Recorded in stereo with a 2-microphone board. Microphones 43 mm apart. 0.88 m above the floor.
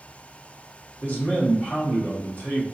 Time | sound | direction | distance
1.0 | a man speaking | 50° left (ahead or behind) | 2.0 m